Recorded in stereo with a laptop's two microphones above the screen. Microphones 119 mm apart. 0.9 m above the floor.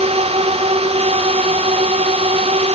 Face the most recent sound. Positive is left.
turn(degrees=-65)  # may be behind; listen again after turning